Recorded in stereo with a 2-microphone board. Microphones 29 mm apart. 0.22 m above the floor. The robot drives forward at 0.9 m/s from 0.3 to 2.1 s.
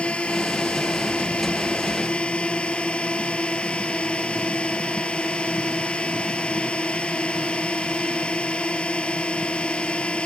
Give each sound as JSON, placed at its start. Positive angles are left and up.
{"t": 0.0, "sound": "a drone", "side_deg": 45}